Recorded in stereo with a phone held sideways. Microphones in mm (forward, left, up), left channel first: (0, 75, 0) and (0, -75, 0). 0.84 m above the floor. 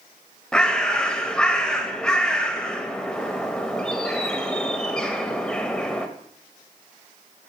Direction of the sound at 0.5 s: 5° left (ahead or behind).